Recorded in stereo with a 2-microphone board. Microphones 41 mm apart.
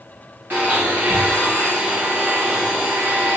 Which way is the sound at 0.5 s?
50° right (ahead or behind).